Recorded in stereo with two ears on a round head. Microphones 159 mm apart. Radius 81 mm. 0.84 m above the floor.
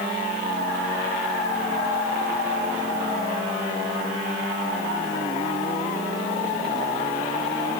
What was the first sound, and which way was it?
Only background noise.